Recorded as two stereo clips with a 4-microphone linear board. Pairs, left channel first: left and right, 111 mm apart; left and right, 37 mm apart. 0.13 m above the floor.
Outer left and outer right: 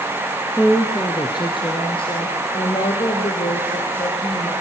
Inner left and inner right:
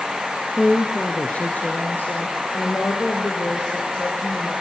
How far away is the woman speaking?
About 1.4 m.